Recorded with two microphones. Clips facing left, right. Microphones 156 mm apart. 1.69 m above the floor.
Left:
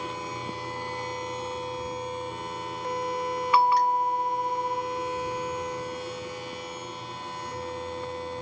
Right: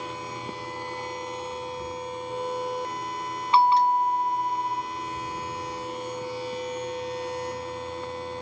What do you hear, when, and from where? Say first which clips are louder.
3.5 s a bell: right 3 dB; 25° right (ahead or behind)